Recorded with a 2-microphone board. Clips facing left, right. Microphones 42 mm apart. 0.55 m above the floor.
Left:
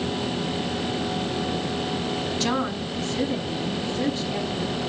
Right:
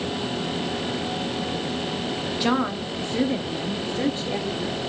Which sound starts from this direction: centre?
A woman speaking, at 2.4 s.